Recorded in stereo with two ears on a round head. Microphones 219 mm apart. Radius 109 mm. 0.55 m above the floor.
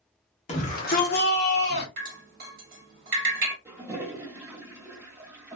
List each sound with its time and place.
0.5 s a shout: 25° left (ahead or behind), 1.0 m; by 1.9 s 45° left (ahead or behind), 1.4 m
2.0 s dripping: 40° right (ahead or behind), 1.5 m
3.6 s a toilet flushing: 10° right (ahead or behind), 0.7 m